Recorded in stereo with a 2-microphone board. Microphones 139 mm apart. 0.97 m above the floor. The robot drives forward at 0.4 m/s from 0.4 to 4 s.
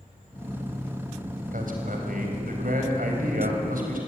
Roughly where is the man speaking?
Right.